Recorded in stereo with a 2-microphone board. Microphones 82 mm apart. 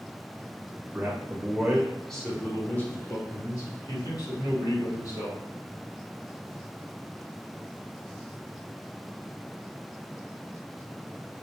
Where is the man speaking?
25° right (ahead or behind), 1.3 m; by 5.4 s 60° left (ahead or behind), 2.5 m.